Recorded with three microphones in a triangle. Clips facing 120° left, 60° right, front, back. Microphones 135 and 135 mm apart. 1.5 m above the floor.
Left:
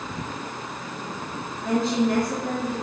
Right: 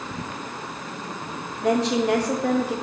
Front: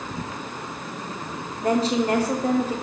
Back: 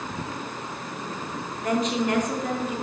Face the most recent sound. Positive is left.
turn(degrees=-60)